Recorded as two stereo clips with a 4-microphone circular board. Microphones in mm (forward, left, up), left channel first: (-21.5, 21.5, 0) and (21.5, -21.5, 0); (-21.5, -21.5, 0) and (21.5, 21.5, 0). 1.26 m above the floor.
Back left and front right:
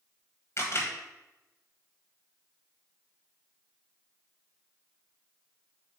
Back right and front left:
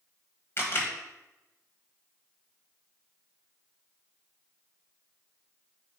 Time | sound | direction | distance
0.6 | a camera shutter | straight behind | 1.3 m